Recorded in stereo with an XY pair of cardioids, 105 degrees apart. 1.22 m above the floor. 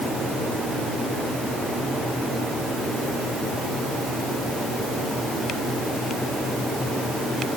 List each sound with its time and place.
Only background noise.